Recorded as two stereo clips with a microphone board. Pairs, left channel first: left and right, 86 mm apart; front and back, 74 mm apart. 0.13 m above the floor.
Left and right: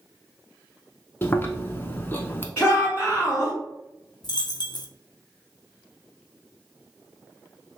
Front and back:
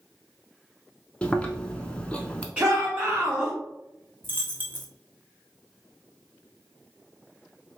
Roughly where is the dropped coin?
Behind left.